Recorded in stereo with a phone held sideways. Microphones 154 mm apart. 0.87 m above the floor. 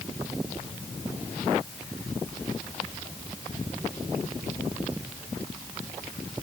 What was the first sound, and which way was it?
Only background noise.